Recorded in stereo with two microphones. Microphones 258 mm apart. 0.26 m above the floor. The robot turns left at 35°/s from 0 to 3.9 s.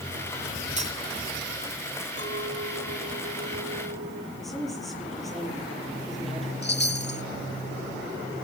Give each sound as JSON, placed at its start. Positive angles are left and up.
{"t": 0.8, "sound": "cutlery clinking", "side_deg": -30, "distance_m": 1.3}
{"t": 2.2, "sound": "a clink", "azimuth_deg": -55, "distance_m": 2.0}
{"t": 4.4, "sound": "a woman speaking", "side_deg": 0, "distance_m": 7.0}
{"t": 6.6, "sound": "a chime", "side_deg": 45, "distance_m": 0.9}